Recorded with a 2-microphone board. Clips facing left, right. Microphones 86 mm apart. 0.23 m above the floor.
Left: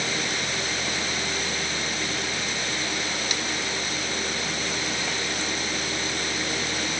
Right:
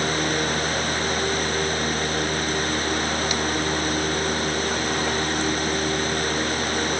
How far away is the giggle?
I don't hear a giggle.